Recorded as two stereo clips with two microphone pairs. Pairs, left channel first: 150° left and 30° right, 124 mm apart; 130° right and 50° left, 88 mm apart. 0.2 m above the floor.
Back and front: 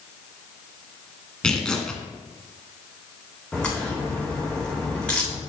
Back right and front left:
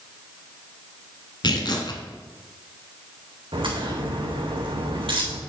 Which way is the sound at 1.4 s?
130° right.